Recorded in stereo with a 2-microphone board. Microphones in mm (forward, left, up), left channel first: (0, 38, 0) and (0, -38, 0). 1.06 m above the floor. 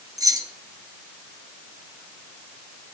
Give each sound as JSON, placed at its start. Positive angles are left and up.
{"t": 0.2, "sound": "keys jangling", "side_deg": -55, "distance_m": 1.1}